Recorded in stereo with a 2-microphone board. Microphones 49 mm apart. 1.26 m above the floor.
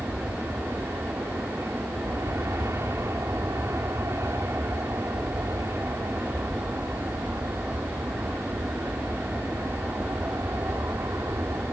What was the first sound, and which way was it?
An aircraft, 70° right (ahead or behind).